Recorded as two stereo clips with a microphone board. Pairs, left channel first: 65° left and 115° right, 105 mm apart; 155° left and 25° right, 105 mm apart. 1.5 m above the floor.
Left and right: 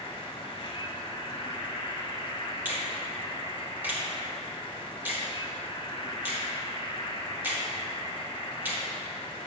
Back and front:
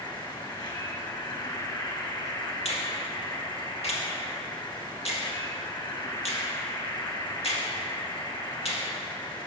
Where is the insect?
110° left, 1.4 m.